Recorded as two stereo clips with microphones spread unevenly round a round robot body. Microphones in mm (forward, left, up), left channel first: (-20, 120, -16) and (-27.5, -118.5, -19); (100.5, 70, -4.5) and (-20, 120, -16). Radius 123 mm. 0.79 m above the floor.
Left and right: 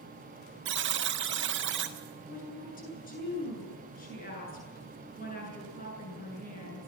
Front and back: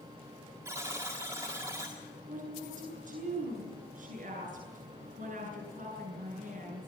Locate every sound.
0.7 s a buzzer: 130° right, 1.7 m
2.3 s a woman speaking: 145° left, 9 m